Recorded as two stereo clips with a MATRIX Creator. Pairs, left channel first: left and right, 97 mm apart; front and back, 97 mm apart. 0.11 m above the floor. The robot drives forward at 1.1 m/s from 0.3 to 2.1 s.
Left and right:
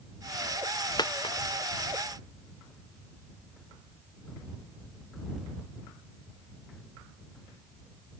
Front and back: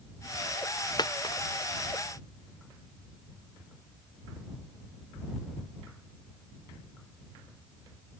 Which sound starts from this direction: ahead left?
A dropped coin, at 1.0 s.